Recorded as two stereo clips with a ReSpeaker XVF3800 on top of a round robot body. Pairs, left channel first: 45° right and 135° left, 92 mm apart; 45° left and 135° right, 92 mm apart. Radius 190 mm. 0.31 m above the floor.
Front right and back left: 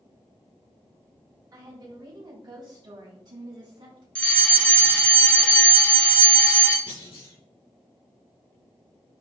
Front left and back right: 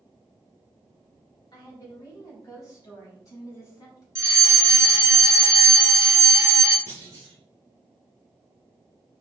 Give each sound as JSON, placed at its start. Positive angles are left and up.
{"t": 1.5, "sound": "a woman speaking", "azimuth_deg": 85, "distance_m": 3.0}
{"t": 4.2, "sound": "a fire alarm", "azimuth_deg": -115, "distance_m": 2.5}
{"t": 6.9, "sound": "a clunk", "azimuth_deg": -80, "distance_m": 4.5}